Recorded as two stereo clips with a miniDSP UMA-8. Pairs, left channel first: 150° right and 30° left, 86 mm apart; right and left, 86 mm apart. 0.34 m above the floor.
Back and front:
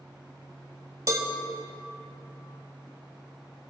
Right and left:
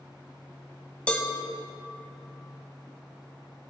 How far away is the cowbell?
About 1.0 m.